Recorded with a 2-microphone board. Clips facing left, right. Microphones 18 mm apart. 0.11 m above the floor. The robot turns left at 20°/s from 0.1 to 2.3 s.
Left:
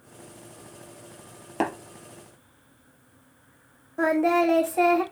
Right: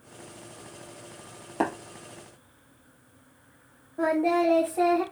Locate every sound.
1.6 s tapping: 30° left (ahead or behind), 3 m
4.0 s singing: 80° left, 2 m